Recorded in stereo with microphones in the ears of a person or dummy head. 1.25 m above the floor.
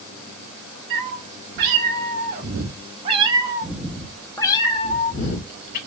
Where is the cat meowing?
65° right (ahead or behind), 2 m; by 5.8 s 55° left (ahead or behind), 1.5 m.